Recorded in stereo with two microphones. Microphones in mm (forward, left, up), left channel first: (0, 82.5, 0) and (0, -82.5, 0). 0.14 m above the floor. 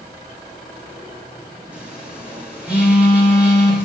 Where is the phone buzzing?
10° right (ahead or behind), 4.5 m.